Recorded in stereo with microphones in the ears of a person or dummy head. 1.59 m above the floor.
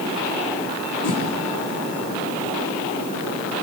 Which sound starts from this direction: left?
A whoosh, at 1.0 s.